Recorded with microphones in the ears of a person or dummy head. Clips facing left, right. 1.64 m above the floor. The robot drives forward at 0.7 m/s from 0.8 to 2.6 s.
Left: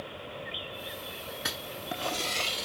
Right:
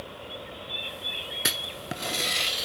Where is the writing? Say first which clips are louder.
Right 3 dB; 30° right (ahead or behind), 0.7 m; by 2.6 s 15° right (ahead or behind), 1.4 m.